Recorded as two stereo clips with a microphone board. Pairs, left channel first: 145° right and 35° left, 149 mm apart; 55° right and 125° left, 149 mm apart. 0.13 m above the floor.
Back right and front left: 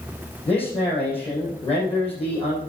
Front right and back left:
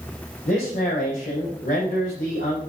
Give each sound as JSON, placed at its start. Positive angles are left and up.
{"t": 0.5, "sound": "a man speaking", "azimuth_deg": -95, "distance_m": 7.0}